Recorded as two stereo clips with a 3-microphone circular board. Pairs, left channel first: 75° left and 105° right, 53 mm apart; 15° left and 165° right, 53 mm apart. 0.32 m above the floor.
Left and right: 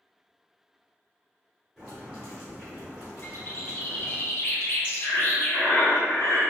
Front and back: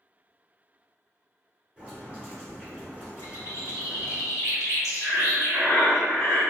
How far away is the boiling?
About 1.3 m.